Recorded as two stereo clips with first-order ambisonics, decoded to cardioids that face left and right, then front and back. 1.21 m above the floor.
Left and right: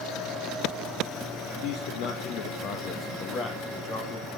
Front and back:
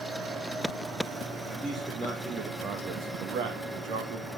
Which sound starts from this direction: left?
A man speaking, at 1.6 s.